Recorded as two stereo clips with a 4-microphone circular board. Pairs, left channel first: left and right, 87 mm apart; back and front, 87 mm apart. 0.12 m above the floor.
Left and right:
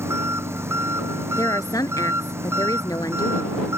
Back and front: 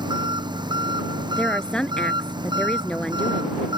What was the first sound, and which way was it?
An engine running, 30° right.